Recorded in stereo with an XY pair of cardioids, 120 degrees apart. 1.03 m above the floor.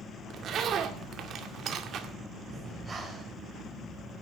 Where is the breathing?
30° right, 4 m.